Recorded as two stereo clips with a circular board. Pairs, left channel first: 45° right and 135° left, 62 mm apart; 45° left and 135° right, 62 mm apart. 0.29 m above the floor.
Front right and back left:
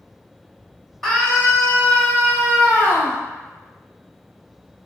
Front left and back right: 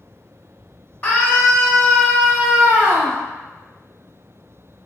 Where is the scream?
30° left, 1.2 m; by 3.2 s 60° right, 1.6 m.